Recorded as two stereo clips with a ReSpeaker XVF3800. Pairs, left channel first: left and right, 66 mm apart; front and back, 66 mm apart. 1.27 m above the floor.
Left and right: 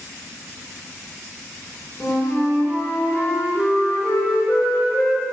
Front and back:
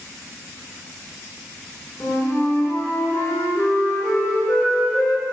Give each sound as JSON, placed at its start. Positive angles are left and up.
{"t": 2.0, "sound": "a flute", "azimuth_deg": 45, "distance_m": 5.5}